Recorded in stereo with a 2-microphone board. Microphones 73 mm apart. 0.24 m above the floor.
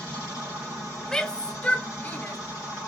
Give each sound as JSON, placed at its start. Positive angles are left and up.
{"t": 1.1, "sound": "a shout", "side_deg": 10, "distance_m": 1.3}